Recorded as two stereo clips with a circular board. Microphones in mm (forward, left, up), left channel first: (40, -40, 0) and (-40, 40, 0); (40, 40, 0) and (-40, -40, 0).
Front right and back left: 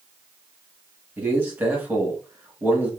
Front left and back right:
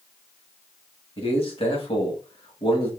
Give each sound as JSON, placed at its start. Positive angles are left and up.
{"t": 1.2, "sound": "a man speaking", "azimuth_deg": 65, "distance_m": 1.8}